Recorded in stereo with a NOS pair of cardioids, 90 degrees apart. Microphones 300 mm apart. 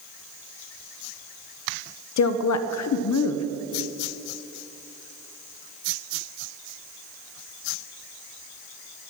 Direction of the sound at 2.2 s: 70° left.